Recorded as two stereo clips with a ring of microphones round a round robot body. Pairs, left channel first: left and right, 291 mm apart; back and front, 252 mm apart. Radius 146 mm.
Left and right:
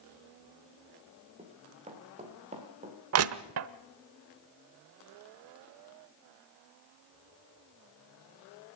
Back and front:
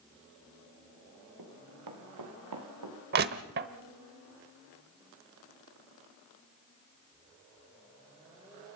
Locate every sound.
1.4 s running footsteps: 20° right, 4 m
3.1 s crushing: 55° right, 0.9 m